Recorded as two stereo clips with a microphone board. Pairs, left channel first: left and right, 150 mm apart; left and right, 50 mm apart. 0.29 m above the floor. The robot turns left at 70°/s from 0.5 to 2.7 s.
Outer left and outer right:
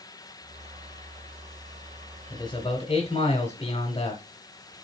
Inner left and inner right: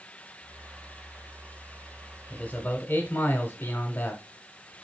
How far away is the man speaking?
About 1.2 m.